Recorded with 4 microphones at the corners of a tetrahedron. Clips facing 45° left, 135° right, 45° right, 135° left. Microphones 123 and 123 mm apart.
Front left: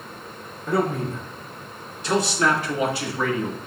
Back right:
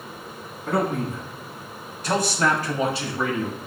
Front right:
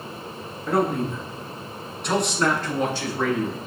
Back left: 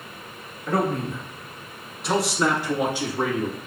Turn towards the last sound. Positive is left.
turn(degrees=155)